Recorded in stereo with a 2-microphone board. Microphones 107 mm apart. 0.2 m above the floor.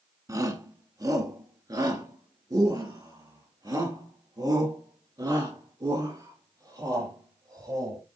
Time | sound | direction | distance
0.3 | a shout | 30° right (ahead or behind) | 1.6 m